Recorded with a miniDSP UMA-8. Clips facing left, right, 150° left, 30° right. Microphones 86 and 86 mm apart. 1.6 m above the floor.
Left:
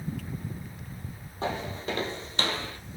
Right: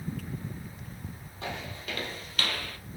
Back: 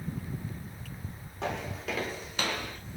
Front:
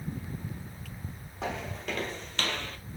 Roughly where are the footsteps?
Ahead left.